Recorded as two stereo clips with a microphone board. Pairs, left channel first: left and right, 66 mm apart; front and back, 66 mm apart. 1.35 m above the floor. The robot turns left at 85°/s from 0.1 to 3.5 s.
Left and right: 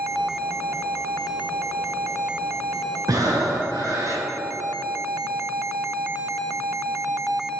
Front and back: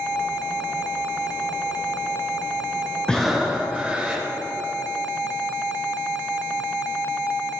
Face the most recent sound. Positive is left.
turn(degrees=-110)